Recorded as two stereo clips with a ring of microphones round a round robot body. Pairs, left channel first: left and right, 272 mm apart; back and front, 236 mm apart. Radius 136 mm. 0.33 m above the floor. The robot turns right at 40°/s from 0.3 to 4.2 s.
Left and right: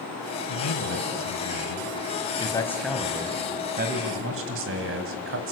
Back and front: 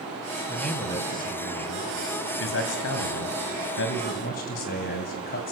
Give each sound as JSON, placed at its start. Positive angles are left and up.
{"t": 0.5, "sound": "a man speaking", "azimuth_deg": 85, "distance_m": 2.0}